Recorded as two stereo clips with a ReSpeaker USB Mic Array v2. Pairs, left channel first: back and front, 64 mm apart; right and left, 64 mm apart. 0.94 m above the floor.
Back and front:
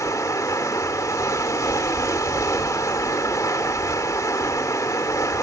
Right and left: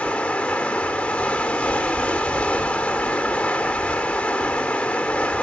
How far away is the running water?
About 1.1 m.